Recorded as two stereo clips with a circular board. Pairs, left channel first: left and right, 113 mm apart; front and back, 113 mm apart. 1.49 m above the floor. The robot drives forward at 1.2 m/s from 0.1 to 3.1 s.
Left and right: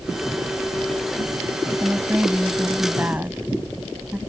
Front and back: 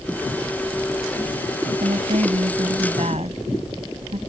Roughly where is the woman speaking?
Behind.